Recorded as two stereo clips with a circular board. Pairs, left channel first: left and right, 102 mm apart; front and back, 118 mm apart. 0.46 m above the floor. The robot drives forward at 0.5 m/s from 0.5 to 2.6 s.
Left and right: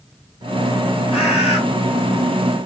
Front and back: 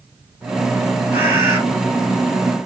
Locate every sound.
1.1 s a bird: 105° left, 2 m; by 1.6 s 110° left, 2 m